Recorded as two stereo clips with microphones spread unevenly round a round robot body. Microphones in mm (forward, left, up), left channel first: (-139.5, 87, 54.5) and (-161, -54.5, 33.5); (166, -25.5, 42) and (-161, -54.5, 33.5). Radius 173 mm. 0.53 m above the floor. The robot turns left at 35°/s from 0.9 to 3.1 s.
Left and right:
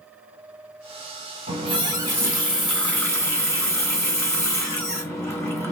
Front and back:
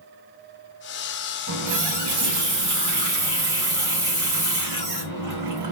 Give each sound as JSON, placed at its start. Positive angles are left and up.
{"t": 1.5, "sound": "a running tap", "azimuth_deg": -145, "distance_m": 1.9}